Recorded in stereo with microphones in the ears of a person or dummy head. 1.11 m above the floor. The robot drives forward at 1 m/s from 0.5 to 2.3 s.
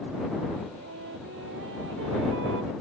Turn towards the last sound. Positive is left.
turn(degrees=-75)  # may be behind; listen again after turning